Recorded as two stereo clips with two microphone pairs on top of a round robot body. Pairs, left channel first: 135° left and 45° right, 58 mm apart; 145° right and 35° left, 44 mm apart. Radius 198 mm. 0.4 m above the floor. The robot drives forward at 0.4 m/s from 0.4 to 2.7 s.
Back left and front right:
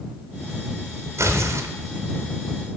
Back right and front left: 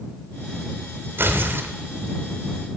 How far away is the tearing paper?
About 0.8 m.